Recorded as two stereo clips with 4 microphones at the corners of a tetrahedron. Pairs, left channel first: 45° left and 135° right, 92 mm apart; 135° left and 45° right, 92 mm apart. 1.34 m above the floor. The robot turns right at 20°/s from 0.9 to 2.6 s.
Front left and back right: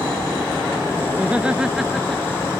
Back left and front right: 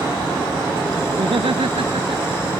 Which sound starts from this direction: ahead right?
Laughter, at 1.1 s.